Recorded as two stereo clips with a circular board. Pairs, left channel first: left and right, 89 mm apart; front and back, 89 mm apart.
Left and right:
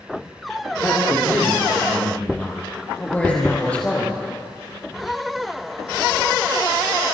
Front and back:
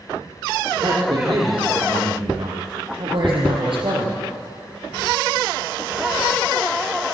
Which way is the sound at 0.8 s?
155° left.